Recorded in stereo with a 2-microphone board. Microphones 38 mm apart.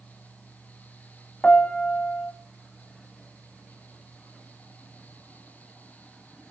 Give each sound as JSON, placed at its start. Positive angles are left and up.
{"t": 1.4, "sound": "a piano", "side_deg": 30, "distance_m": 1.1}